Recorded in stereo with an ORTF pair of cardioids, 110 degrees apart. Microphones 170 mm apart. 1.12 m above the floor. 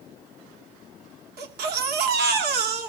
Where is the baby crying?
70° right, 2.5 m.